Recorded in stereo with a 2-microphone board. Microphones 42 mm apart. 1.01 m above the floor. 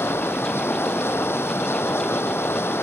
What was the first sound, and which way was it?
Running water, 70° left (ahead or behind).